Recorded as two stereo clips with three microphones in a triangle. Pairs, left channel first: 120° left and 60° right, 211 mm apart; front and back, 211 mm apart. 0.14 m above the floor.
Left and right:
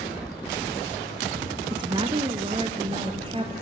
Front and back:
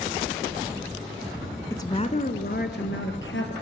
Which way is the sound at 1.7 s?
55° right.